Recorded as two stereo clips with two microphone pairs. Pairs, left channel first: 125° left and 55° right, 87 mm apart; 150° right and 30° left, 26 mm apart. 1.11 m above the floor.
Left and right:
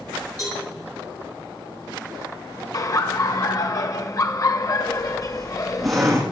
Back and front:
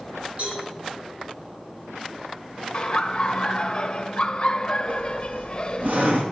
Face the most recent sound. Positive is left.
turn(degrees=30)